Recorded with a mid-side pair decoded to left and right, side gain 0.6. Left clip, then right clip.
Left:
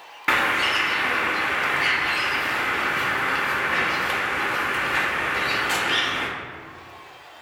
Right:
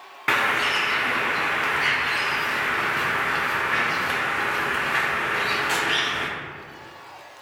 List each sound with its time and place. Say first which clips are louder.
0.3 s a bird: left 1 dB; straight ahead, 0.6 m